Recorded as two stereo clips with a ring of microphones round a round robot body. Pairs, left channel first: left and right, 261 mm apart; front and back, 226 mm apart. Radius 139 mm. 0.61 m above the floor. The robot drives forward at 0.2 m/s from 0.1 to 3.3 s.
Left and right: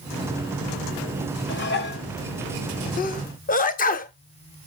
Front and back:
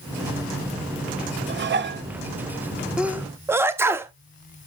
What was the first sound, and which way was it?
Dishes clattering, 135° left.